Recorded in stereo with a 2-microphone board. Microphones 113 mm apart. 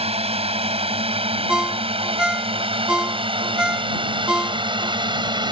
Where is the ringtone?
10° right (ahead or behind).